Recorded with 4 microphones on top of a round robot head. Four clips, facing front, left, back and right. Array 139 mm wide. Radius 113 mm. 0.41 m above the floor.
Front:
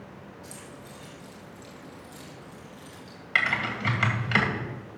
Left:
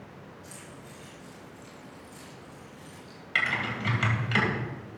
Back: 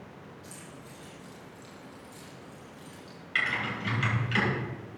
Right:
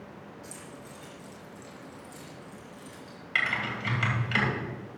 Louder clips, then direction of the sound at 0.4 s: Right 2 dB, front 3 dB; 65° right.